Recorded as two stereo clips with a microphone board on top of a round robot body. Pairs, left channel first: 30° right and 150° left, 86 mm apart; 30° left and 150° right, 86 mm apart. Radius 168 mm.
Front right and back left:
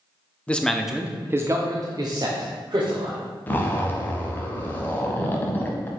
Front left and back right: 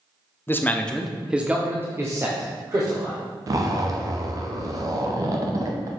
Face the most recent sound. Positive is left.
turn(degrees=-100)